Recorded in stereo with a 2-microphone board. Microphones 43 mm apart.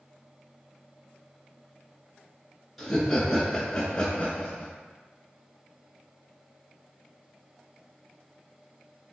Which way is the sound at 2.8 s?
Centre (ahead or behind).